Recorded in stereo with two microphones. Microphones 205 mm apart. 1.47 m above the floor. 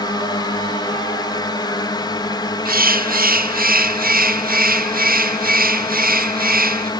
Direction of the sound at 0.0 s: 20° left (ahead or behind).